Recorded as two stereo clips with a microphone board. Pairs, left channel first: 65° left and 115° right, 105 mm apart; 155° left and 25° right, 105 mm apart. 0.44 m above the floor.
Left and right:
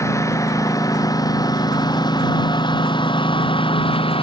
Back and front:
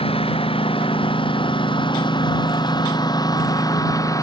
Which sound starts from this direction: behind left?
A lawn mower, at 0.0 s.